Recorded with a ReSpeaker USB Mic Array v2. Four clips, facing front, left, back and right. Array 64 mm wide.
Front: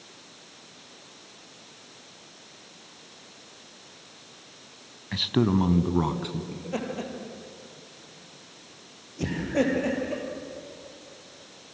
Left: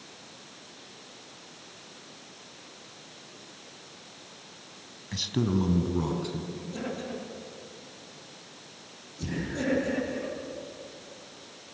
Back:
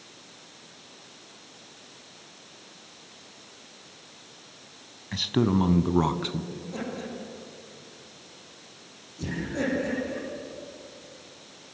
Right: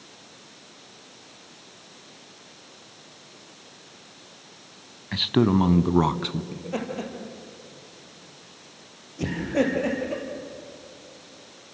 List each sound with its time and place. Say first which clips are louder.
5.1 s a man speaking: right 7 dB, even; 70° right, 1.1 m; by 6.4 s 115° right, 1.5 m
6.5 s laughter: right 5 dB, front 3 dB; 50° right, 6.5 m